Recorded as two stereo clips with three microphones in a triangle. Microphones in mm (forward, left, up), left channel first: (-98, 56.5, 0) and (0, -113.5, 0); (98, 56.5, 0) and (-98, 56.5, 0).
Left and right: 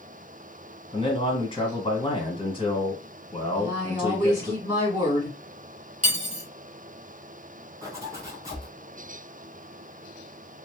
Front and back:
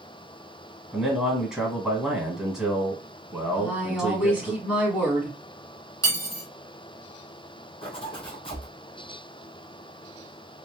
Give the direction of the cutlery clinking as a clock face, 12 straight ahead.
2 o'clock.